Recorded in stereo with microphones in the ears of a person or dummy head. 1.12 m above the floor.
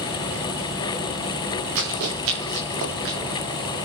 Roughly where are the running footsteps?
Right.